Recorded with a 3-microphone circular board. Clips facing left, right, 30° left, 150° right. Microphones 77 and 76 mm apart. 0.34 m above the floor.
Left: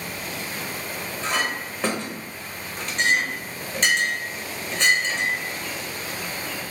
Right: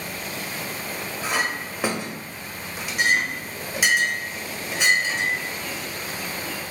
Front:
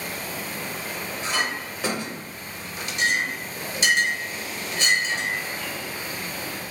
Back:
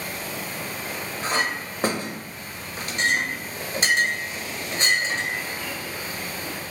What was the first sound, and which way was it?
A clink, 165° right.